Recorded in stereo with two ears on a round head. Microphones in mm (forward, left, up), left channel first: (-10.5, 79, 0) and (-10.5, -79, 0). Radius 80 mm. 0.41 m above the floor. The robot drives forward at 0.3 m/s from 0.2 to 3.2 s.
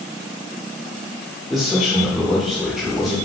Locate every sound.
1.5 s a man speaking: centre (ahead or behind), 0.8 m